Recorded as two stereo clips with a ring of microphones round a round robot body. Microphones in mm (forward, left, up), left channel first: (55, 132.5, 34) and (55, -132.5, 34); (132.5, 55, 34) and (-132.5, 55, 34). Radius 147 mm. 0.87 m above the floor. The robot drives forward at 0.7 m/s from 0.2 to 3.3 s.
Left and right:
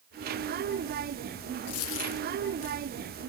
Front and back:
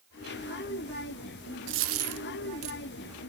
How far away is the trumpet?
No trumpet in this recording.